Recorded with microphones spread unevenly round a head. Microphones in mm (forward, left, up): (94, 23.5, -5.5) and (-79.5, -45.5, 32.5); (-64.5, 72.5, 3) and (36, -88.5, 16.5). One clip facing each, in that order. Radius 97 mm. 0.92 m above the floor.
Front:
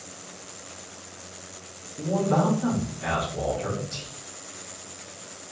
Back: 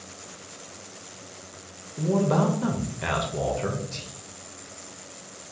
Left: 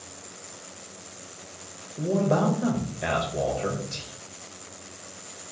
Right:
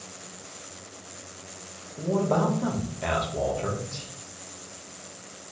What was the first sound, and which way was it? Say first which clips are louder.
A man speaking: back 1 dB, left 1 dB; 160° right.